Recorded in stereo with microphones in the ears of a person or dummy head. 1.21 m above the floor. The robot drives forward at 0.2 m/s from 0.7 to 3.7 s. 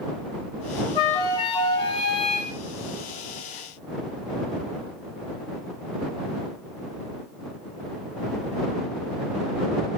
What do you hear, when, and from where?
0.9 s a flute: 25° left (ahead or behind), 1.3 m; by 2.5 s 30° left (ahead or behind), 1.1 m